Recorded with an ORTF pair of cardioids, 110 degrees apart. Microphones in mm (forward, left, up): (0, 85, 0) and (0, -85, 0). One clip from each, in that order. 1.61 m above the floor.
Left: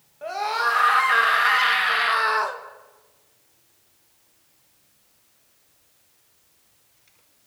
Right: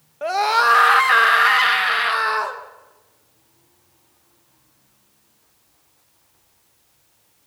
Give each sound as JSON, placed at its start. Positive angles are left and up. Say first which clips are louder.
{"t": 0.2, "sound": "a scream", "louder": "right 7 dB", "azimuth_deg": -55, "distance_m": 2.5}